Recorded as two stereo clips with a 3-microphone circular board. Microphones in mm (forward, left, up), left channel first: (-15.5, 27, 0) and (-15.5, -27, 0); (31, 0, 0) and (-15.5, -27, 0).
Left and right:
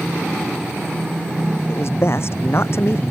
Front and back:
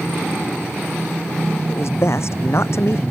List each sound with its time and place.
1.7 s a man speaking: 60° left